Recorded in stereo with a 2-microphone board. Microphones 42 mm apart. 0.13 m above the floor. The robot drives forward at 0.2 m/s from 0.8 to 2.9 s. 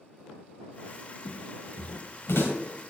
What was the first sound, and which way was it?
Footsteps, 70° left (ahead or behind).